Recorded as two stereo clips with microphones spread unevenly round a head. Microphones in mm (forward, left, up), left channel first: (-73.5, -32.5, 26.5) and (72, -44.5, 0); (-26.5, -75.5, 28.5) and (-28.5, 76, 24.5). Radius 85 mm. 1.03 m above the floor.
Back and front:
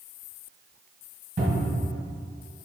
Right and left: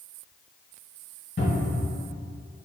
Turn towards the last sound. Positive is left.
turn(degrees=-45)